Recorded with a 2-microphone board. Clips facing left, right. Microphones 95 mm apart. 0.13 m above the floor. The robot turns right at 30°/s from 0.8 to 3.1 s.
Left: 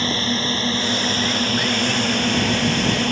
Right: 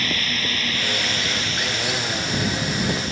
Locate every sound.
0.0 s a drone: 35° left; by 3.1 s 100° left